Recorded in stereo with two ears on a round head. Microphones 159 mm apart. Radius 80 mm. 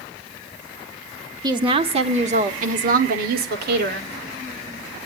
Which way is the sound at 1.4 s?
25° right (ahead or behind).